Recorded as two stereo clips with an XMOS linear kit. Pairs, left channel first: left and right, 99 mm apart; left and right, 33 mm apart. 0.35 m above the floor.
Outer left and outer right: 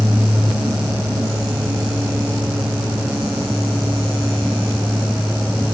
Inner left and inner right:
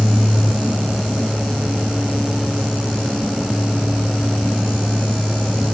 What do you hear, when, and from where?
Only background noise.